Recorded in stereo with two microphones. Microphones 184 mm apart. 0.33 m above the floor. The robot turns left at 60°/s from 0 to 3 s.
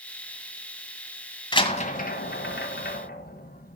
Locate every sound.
1.5 s a door slam: 25° left (ahead or behind), 1.6 m; by 3.8 s 55° left (ahead or behind), 1.6 m